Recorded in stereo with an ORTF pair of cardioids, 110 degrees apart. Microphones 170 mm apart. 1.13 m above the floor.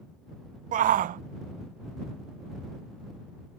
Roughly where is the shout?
Ahead right.